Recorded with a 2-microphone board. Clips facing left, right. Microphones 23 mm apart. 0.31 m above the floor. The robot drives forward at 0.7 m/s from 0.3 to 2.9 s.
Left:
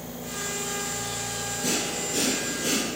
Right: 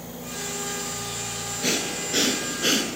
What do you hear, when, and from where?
1.6 s breathing: 40° right (ahead or behind), 2 m; by 2.9 s 65° right (ahead or behind), 1.6 m